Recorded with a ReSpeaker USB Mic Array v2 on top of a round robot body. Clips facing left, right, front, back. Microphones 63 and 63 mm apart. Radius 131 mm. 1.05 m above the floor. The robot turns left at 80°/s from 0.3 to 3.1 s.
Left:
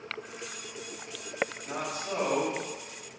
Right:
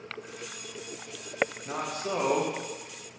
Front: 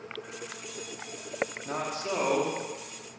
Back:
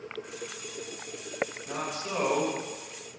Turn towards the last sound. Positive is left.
turn(degrees=-150)